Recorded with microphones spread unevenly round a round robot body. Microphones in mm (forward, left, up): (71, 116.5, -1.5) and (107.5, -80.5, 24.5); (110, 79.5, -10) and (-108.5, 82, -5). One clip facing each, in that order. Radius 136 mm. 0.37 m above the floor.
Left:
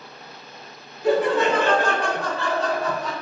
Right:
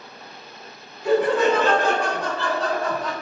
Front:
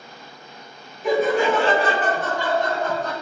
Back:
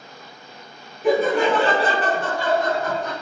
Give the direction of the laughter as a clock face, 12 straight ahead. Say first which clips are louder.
Right 1 dB, back 1 dB; 7 o'clock.